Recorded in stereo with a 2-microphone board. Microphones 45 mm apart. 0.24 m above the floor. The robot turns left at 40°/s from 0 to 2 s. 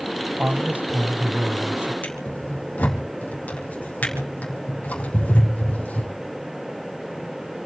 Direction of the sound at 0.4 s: 45° right.